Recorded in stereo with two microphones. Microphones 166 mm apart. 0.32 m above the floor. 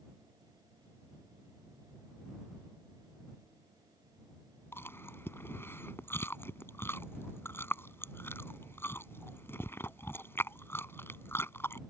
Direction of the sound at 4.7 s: 15° left (ahead or behind).